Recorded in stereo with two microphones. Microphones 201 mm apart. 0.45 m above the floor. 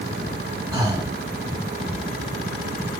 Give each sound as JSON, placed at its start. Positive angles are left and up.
{"t": 0.7, "sound": "breathing", "side_deg": -15, "distance_m": 1.0}